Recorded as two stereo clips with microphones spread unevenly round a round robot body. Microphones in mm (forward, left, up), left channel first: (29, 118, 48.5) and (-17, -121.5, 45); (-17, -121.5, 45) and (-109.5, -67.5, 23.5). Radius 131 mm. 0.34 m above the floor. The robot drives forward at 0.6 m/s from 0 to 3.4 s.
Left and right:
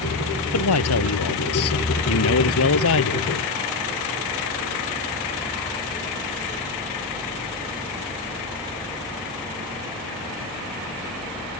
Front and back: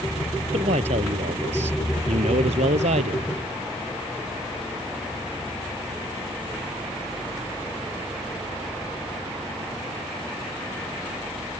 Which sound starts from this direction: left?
A man speaking, at 0.5 s.